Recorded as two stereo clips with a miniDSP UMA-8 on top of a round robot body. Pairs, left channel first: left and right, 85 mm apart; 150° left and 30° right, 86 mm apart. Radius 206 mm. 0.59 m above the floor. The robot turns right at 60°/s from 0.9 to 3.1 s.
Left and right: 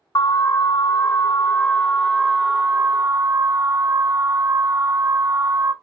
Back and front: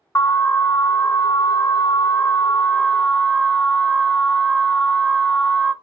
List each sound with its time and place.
0.1 s an alarm: 105° left, 0.8 m; by 5.7 s 125° right, 0.8 m